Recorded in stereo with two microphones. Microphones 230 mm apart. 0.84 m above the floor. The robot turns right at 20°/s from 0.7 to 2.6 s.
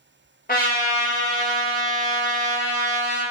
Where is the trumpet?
125° left, 0.7 m; by 3.2 s 165° left, 0.7 m.